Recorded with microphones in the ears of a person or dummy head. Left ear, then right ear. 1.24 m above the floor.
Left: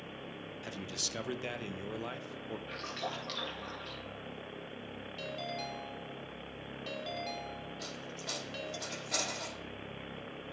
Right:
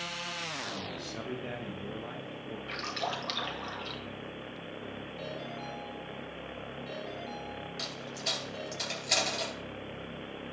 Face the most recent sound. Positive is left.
turn(degrees=-75)  # may be behind; listen again after turning